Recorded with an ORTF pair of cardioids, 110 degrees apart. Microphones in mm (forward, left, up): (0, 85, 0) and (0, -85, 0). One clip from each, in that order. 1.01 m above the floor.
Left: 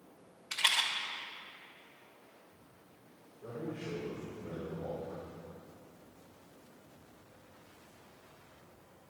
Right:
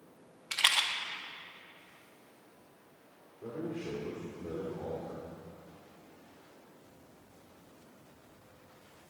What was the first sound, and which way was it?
A rattle, 25° right.